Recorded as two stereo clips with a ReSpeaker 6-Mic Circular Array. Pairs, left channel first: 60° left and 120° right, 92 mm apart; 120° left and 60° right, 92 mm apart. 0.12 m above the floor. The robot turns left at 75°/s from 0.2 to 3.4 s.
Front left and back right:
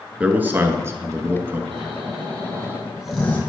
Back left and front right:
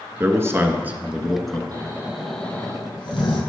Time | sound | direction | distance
0.2 | a man speaking | 60° right | 1.1 m
1.7 | snoring | 105° right | 2.5 m